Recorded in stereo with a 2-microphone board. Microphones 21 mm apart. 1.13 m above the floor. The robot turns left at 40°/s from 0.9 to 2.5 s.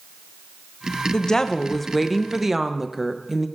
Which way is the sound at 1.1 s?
35° left.